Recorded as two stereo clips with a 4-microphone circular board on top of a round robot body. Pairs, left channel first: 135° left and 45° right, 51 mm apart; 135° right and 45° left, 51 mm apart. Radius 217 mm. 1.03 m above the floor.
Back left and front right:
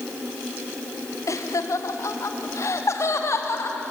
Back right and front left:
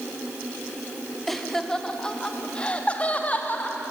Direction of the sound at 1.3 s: 140° left.